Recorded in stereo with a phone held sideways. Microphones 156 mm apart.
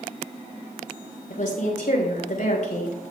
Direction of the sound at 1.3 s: 55° left (ahead or behind).